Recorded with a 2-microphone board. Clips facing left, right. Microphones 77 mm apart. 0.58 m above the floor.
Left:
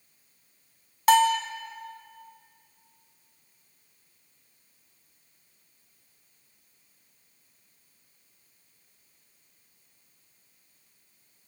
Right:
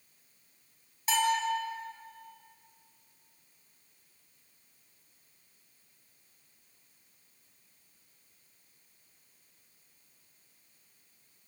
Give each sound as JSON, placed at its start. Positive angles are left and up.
{"t": 1.1, "sound": "a bell", "side_deg": 85, "distance_m": 2.0}